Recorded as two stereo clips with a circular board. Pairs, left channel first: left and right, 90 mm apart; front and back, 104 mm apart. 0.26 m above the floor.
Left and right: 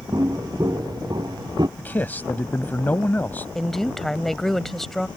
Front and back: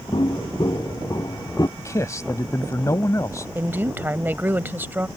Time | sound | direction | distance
0.1 | footsteps | 45° right | ?
1.8 | a man speaking | 35° left | ?
3.5 | a woman speaking | 170° left | ?